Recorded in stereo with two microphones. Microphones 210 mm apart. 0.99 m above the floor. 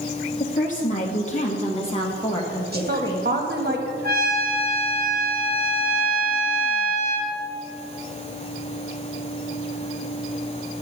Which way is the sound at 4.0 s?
45° right (ahead or behind).